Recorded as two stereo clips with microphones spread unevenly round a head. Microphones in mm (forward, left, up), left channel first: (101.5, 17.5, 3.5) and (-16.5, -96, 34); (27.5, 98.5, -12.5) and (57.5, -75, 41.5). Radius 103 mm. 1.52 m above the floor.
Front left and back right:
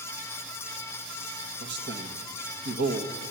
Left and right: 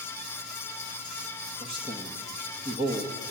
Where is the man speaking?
145° right, 1.6 m.